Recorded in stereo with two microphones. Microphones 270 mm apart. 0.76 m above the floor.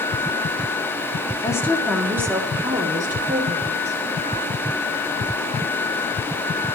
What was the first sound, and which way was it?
A woman speaking, 15° left (ahead or behind).